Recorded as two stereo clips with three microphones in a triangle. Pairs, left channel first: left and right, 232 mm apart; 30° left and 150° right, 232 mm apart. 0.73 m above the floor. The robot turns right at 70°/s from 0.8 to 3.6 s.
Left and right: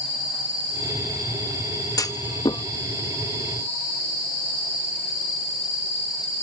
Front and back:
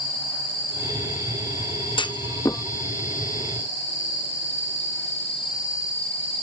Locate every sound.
2.0 s a clunk: 45° left; by 2.6 s 90° left